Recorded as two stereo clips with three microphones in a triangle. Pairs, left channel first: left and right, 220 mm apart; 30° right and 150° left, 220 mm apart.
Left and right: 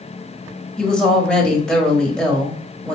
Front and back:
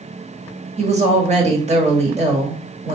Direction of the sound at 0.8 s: 175° left.